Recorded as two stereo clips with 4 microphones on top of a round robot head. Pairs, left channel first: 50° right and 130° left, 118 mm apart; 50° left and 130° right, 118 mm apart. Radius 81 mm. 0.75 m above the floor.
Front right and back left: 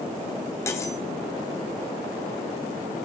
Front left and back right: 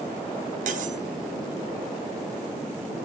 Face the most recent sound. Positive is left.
turn(degrees=-115)